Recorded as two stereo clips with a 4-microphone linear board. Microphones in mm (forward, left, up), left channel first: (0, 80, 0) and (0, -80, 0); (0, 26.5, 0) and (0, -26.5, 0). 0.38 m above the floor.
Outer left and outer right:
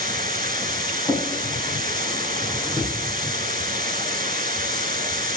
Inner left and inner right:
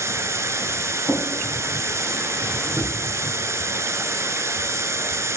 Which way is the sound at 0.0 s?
60° right (ahead or behind).